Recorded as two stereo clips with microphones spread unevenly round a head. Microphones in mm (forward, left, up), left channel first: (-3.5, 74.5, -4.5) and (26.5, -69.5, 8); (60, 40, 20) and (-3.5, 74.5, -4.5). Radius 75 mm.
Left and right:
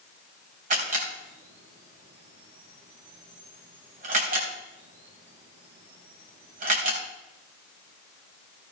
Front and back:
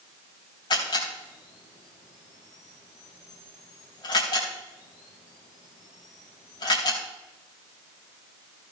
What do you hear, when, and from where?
0.7 s a camera shutter: 45° right, 3.5 m